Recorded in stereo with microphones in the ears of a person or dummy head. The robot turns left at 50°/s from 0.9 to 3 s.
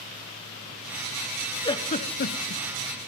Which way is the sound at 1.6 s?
20° left (ahead or behind).